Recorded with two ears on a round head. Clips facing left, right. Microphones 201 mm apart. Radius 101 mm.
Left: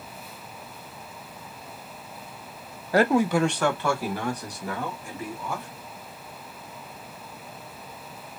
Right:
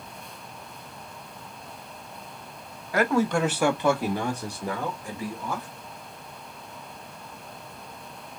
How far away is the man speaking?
About 0.5 m.